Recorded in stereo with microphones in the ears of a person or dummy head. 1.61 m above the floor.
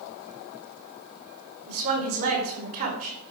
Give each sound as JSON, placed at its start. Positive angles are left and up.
{"t": 1.7, "sound": "a woman speaking", "side_deg": -50, "distance_m": 5.0}